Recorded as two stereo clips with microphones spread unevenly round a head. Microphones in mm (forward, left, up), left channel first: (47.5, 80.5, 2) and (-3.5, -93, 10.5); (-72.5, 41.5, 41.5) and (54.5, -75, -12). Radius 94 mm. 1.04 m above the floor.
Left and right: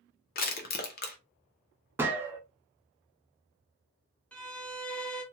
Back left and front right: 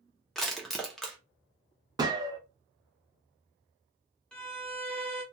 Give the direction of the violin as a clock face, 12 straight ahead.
12 o'clock.